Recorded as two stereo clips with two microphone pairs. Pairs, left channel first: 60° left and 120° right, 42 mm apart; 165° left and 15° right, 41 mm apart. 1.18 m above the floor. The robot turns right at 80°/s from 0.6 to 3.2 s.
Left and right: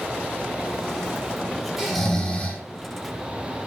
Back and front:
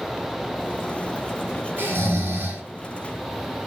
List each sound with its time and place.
1.8 s snoring: 50° right, 5.5 m; by 2.6 s 15° left, 5.5 m